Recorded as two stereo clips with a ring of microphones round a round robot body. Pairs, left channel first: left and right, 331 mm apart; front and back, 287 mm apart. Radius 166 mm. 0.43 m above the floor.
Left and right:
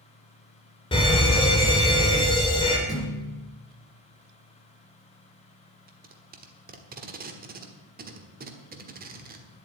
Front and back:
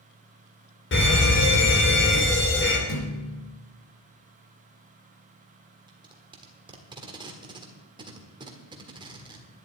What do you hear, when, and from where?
0.9 s a fire alarm: 20° left, 2.5 m
2.9 s a thud: 10° left, 2.5 m
5.9 s tape being pulled: 120° right, 1.4 m